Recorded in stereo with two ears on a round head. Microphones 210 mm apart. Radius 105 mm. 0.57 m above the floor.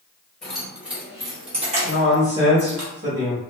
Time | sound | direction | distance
0.4 | keys jangling | 5° left (ahead or behind) | 1.3 m
1.8 | a man speaking | 40° right (ahead or behind) | 1.3 m